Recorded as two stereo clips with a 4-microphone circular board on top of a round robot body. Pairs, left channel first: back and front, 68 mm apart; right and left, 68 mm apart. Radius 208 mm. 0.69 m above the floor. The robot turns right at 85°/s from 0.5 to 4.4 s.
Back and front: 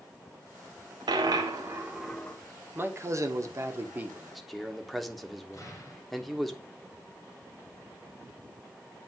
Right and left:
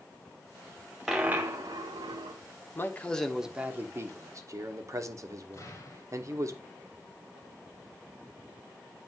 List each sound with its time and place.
1.1 s a dropped coin: 5° left, 0.5 m; by 2.4 s 115° left, 0.5 m
2.8 s a man speaking: 50° right, 1.5 m; by 6.5 s 90° left, 1.5 m
5.5 s an explosion: 140° right, 2.0 m